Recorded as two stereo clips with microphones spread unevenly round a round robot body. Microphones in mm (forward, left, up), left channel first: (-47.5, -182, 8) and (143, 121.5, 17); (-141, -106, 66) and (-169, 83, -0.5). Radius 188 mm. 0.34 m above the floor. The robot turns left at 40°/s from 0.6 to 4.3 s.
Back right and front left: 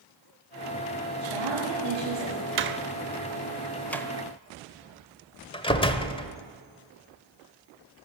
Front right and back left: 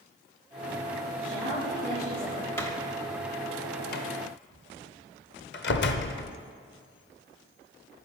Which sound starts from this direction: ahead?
A door slam, at 2.6 s.